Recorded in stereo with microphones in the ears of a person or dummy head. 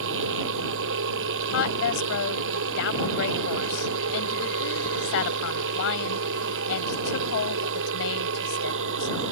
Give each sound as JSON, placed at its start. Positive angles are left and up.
{"t": 0.0, "sound": "a machine running", "side_deg": -65}
{"t": 1.5, "sound": "a woman speaking", "side_deg": 75}